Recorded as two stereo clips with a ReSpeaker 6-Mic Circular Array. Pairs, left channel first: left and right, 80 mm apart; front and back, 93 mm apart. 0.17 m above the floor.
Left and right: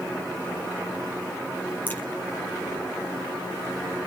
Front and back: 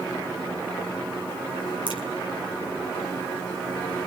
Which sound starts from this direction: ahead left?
A crack, at 1.9 s.